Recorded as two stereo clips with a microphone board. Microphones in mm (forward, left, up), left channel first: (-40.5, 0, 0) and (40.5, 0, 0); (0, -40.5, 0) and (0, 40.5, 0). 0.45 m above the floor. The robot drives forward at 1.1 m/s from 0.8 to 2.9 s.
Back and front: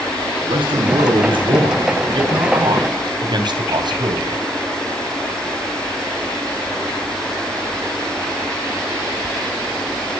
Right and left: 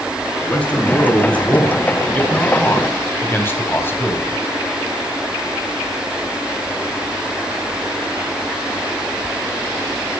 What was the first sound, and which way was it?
A man speaking, 15° right.